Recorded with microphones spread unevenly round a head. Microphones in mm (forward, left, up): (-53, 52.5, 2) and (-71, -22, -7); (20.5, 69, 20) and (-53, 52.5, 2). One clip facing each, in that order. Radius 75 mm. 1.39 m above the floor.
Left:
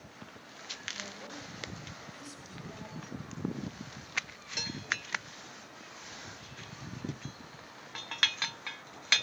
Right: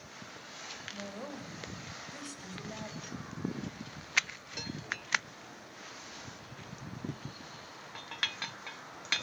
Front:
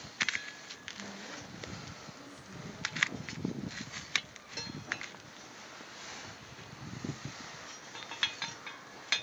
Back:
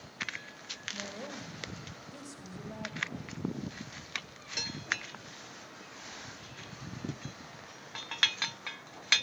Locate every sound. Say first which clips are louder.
0.9 s a woman speaking: right 3 dB, back 4 dB; 160° right, 6 m